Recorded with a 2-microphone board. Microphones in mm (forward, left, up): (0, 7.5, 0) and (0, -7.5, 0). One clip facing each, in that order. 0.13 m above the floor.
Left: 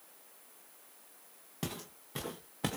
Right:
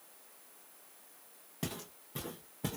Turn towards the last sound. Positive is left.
turn(degrees=55)  # may be behind; listen again after turning